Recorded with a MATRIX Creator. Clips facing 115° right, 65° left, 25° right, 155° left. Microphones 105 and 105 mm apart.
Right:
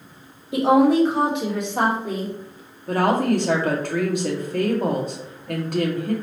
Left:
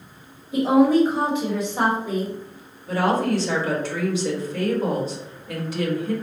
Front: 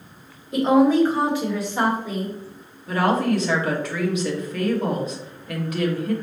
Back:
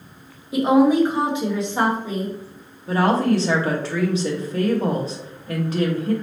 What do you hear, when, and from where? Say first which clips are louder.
0.5 s a woman speaking: even, back 1 dB; 120° right, 1.1 m; by 2.3 s 145° right, 1.9 m
2.9 s a woman speaking: right 2 dB, back 2 dB; 145° right, 1.2 m